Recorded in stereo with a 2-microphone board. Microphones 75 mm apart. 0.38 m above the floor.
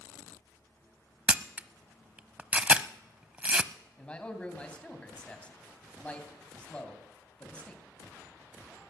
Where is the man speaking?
15° left (ahead or behind), 2.5 m.